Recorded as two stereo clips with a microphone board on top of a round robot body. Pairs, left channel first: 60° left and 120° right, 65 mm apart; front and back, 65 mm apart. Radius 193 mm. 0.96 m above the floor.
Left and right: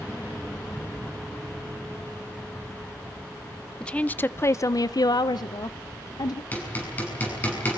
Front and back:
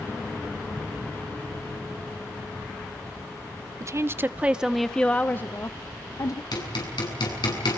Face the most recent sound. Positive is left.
turn(degrees=-5)